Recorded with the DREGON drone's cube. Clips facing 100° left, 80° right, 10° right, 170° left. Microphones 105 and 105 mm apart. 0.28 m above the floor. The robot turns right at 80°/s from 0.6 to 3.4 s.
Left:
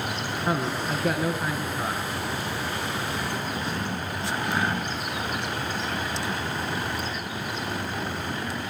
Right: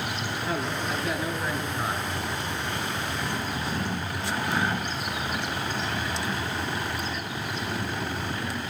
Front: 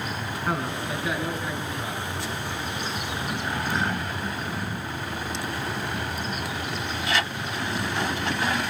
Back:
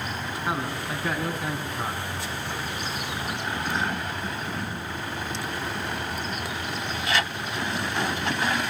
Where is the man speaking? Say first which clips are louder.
Left 4 dB, front 1 dB; 100° left, 4 m; by 2.0 s 145° right, 4 m.